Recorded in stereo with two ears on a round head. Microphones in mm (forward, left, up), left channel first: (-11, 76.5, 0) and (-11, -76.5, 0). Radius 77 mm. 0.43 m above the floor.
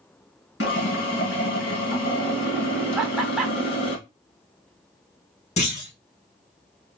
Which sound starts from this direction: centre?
Laughter, at 3.0 s.